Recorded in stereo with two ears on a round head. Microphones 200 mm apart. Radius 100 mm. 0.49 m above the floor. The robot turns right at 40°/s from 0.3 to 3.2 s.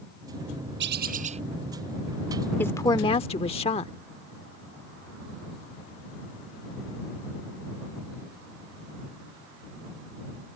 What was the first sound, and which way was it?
A bird, 50° right (ahead or behind).